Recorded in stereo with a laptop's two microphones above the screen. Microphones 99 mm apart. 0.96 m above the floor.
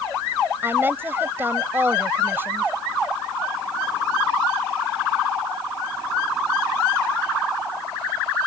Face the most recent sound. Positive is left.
turn(degrees=-25)  # may be behind; listen again after turning